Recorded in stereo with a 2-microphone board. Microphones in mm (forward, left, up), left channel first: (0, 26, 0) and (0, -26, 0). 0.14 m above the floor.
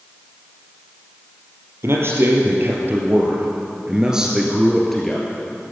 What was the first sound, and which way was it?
A man speaking, 55° right (ahead or behind).